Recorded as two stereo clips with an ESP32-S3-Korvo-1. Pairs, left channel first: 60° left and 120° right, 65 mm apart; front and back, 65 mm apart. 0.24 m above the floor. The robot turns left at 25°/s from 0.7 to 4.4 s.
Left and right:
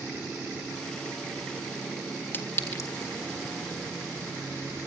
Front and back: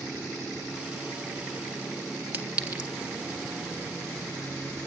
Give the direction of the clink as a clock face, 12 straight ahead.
8 o'clock.